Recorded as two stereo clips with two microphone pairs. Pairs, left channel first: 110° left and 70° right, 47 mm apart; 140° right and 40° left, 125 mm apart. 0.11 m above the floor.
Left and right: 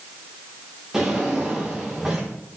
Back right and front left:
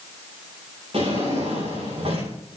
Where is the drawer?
10° left, 9 m.